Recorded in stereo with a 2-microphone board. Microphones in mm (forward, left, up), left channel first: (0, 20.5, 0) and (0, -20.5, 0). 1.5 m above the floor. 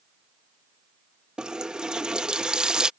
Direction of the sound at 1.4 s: 20° right (ahead or behind).